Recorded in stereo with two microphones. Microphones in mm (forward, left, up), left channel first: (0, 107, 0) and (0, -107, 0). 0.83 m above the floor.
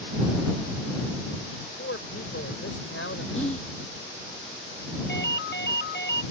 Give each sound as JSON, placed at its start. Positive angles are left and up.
{"t": 1.6, "sound": "a man speaking", "side_deg": 80}
{"t": 3.3, "sound": "whispering", "side_deg": 30}
{"t": 5.1, "sound": "a ringtone", "side_deg": 55}